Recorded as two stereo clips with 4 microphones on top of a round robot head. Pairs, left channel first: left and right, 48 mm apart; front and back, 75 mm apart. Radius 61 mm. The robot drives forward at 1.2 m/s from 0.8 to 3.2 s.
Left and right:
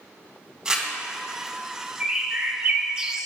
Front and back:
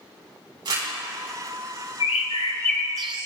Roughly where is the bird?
Ahead.